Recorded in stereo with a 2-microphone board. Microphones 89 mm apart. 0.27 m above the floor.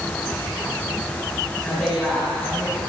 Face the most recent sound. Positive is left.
turn(degrees=-5)  # may be behind; listen again after turning